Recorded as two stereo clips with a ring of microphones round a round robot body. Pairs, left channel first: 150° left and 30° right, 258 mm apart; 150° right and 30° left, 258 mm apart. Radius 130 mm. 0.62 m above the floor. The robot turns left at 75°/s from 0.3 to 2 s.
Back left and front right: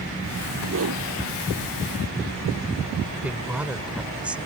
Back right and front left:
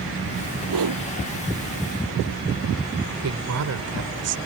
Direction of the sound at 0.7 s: 20° left.